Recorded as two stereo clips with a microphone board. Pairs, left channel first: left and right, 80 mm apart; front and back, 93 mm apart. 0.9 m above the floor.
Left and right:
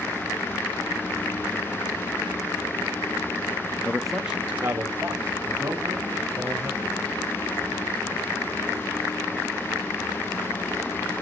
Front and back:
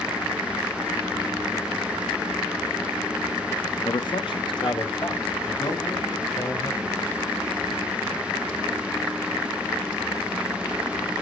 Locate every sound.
3.9 s a man speaking: 25° left, 0.7 m; by 7.0 s 40° right, 4 m